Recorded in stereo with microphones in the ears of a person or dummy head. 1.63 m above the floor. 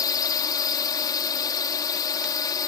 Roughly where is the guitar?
I don't hear a guitar.